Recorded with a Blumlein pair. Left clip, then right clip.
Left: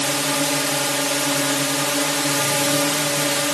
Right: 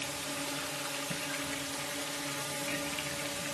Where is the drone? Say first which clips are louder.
Left 16 dB; 35° left.